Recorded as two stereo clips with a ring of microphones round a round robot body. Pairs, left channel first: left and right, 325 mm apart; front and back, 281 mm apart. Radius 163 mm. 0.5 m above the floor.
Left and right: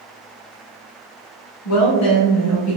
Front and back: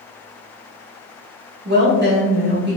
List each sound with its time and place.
1.6 s a woman speaking: 130° left, 1.9 m